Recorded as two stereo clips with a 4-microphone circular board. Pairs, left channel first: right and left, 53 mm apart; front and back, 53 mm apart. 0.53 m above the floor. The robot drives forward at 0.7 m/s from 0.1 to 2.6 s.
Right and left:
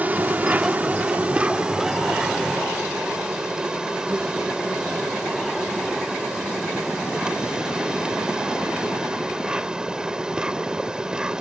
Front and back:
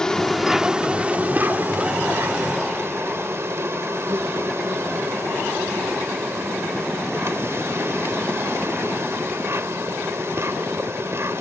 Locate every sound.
0.0 s an insect: 65° left; by 11.4 s 160° left